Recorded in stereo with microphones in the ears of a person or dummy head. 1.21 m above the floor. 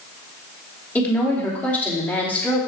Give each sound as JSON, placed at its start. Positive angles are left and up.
{"t": 0.9, "sound": "a woman speaking", "side_deg": 5, "distance_m": 3.0}